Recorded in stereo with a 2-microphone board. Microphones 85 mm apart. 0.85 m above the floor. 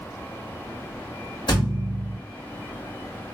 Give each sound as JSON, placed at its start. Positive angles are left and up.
{"t": 1.5, "sound": "a thud", "side_deg": 60, "distance_m": 1.5}